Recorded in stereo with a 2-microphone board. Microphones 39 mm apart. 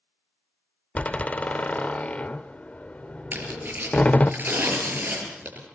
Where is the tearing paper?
45° right (ahead or behind), 5.5 m.